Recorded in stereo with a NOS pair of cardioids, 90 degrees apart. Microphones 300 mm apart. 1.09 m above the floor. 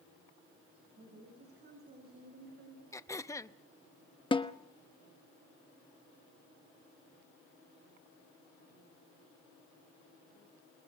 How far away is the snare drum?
About 1.3 m.